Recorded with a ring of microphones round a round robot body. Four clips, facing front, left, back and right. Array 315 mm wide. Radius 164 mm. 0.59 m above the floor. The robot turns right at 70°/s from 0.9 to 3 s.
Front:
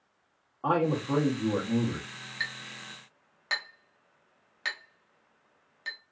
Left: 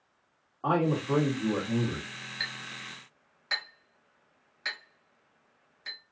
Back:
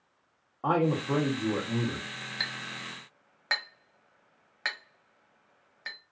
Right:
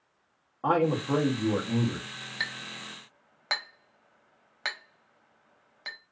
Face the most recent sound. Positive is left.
turn(degrees=-105)